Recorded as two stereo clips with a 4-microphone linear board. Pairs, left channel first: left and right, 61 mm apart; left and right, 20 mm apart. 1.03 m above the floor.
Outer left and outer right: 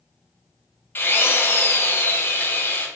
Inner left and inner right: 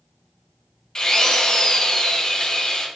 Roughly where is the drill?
Left.